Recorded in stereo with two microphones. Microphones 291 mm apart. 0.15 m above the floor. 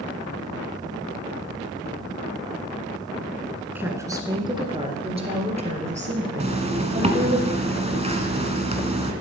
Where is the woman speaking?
5° right (ahead or behind), 1.7 m; by 7.4 s 25° right (ahead or behind), 4 m.